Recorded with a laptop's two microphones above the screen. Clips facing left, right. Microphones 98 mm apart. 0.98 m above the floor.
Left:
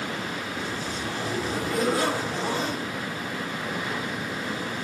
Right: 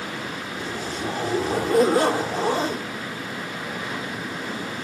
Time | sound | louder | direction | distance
0.6 | a zipper | right 2 dB | 40° right (ahead or behind) | 3.5 m